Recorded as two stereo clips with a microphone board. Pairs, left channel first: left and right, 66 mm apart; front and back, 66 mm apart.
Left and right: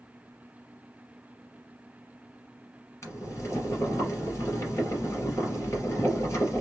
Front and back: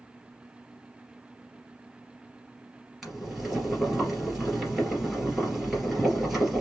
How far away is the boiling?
About 2.5 m.